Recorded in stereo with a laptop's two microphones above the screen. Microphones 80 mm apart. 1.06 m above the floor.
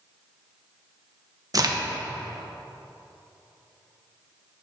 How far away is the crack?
About 0.9 m.